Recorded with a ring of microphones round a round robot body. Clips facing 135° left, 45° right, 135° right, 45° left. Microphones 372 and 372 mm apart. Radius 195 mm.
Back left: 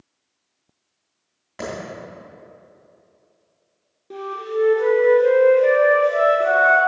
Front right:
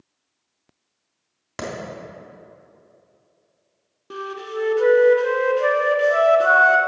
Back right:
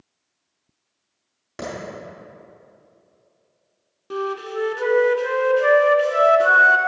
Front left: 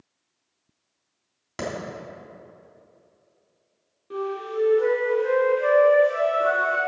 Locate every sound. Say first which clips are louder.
1.6 s a clap: even, front left 1 dB; 20° right, 3.5 m
4.1 s a flute: back left 4 dB, back right 2 dB; 100° right, 1.0 m